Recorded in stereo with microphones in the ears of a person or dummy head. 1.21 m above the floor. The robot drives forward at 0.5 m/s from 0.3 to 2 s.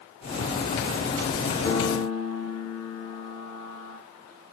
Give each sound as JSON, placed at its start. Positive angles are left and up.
{"t": 1.6, "sound": "a piano", "side_deg": 15, "distance_m": 2.5}